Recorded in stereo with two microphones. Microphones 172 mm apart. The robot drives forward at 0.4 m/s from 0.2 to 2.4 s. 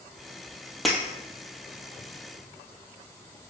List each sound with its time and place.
0.8 s breaking glass: centre (ahead or behind), 1.5 m